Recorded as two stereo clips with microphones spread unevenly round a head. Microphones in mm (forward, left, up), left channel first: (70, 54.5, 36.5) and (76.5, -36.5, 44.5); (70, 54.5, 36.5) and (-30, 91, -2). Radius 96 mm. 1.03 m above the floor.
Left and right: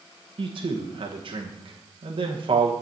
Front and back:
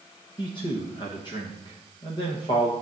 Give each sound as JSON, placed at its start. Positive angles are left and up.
{"t": 0.4, "sound": "a man speaking", "azimuth_deg": -85, "distance_m": 1.0}